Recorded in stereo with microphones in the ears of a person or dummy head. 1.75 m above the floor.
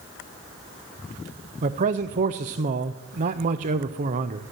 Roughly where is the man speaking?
Right.